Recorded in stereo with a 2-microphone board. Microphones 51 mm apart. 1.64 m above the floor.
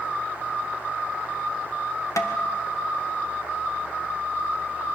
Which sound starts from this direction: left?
Tapping, at 2.2 s.